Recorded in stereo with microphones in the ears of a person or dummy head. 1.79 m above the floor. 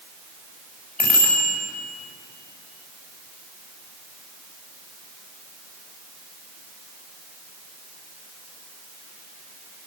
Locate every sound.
1.0 s a bicycle bell: 5° left (ahead or behind), 6 m